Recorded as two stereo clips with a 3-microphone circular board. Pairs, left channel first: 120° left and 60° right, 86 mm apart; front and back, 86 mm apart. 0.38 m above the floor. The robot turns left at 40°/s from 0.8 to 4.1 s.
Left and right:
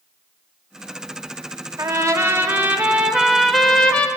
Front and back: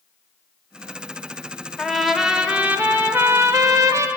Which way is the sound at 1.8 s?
85° right.